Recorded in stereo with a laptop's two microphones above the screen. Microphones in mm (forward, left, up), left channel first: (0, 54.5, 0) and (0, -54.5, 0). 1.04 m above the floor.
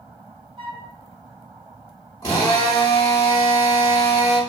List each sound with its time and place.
0.6 s a flute: 50° right (ahead or behind), 1.1 m
2.2 s a drill: 35° left (ahead or behind), 1.4 m